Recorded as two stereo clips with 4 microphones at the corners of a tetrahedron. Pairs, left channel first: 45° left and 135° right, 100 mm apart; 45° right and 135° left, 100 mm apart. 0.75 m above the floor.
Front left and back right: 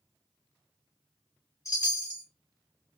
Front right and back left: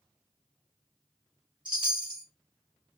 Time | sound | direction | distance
1.6 | a chime | 100° left | 1.1 m